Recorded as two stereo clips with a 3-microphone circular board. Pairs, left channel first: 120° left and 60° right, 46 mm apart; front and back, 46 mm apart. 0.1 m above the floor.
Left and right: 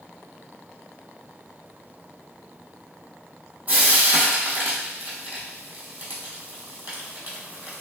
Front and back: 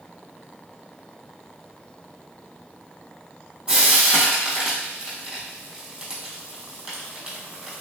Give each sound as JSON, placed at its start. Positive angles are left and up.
{"t": 3.7, "sound": "frying", "azimuth_deg": -110, "distance_m": 1.3}